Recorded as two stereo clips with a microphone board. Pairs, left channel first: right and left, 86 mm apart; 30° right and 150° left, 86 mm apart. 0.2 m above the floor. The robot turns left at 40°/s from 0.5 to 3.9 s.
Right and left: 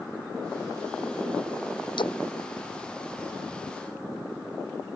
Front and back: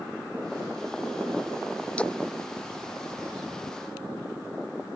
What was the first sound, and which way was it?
A splash, 105° right.